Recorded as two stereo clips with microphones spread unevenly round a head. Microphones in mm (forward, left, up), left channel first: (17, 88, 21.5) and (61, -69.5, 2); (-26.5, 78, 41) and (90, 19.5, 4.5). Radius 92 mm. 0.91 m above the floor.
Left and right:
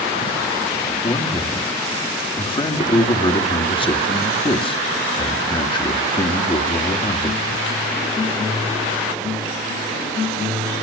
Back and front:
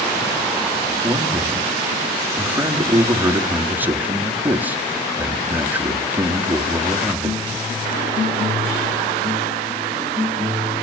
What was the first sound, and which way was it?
A man speaking, 45° left.